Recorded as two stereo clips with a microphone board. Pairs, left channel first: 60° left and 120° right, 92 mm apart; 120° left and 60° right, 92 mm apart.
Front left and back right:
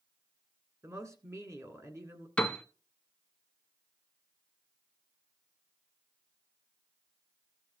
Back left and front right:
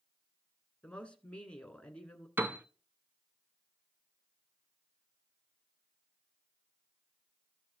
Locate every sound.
0.8 s a woman speaking: 165° right, 1.6 m
2.4 s a piano: 10° right, 0.8 m